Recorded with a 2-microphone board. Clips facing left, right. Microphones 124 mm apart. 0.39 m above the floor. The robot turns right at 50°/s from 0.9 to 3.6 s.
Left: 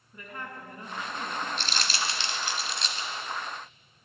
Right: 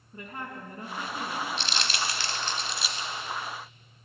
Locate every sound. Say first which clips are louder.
0.1 s a woman speaking: right 2 dB; 30° right (ahead or behind), 3.5 m; by 1.5 s 5° right (ahead or behind), 3.5 m
1.6 s crumpling: right 1 dB; 50° left (ahead or behind), 1.3 m; by 3.1 s 20° right (ahead or behind), 1.3 m